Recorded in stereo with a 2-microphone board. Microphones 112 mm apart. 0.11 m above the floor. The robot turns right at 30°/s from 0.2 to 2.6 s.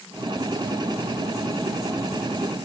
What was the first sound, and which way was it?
Only background noise.